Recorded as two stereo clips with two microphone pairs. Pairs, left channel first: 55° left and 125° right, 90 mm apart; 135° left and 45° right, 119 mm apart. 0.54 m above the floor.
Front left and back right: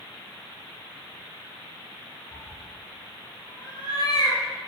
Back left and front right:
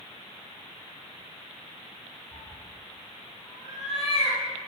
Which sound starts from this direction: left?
A cat meowing, at 2.3 s.